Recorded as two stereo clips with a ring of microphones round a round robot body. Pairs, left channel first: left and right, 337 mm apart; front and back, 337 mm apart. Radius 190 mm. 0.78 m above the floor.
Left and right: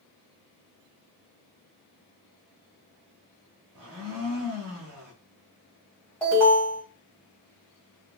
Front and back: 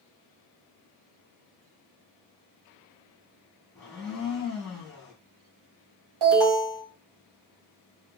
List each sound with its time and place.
3.8 s a blender: 90° right, 0.9 m
6.2 s an alarm: 175° left, 1.5 m